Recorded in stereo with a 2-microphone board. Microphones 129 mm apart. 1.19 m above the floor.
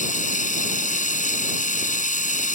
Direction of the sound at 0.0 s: 75° left (ahead or behind).